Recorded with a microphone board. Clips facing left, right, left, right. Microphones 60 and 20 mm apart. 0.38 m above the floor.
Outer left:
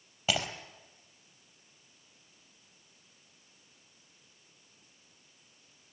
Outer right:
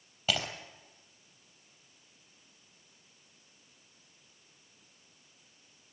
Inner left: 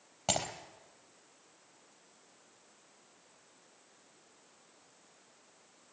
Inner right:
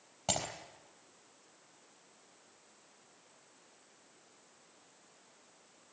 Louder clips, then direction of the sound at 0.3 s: Outer left 1 dB, inner left 2 dB; 15° left (ahead or behind).